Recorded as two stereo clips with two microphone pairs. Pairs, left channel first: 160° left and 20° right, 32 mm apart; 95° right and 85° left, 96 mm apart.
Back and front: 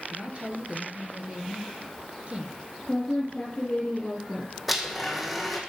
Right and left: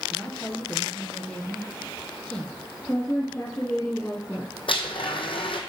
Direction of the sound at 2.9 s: 165° right.